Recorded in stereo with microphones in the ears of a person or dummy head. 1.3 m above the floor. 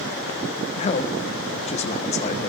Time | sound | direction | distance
0.8 | a man speaking | 30° left (ahead or behind) | 1.2 m